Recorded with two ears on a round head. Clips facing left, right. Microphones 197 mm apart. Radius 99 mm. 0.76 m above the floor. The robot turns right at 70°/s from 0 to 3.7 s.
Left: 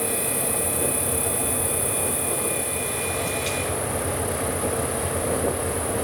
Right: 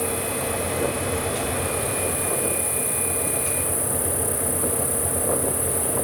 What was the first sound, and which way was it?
An insect, 10° left.